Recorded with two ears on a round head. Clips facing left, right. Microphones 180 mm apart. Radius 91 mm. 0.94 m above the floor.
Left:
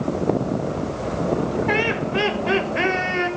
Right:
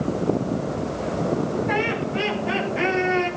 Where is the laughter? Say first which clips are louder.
Left 2 dB; 80° left, 4.5 m; by 3.3 s 70° left (ahead or behind), 5 m.